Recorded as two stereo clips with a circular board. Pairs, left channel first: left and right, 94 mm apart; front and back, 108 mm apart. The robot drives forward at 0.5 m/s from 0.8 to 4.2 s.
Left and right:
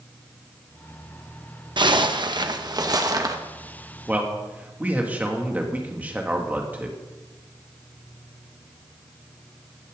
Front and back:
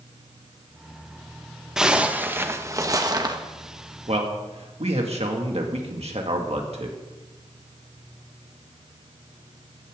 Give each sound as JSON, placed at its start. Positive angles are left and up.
{"t": 1.8, "sound": "a zipper", "azimuth_deg": -95, "distance_m": 1.0}
{"t": 4.1, "sound": "a man speaking", "azimuth_deg": -160, "distance_m": 2.5}